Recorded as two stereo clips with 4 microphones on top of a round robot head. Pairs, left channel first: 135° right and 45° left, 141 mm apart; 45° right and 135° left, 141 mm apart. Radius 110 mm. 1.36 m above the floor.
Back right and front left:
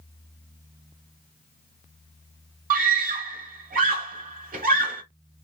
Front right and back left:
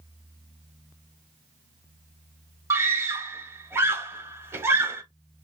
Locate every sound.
2.7 s a scream: 60° left, 1.2 m